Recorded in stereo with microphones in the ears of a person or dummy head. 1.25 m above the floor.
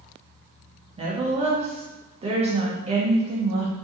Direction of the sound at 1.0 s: 30° right (ahead or behind).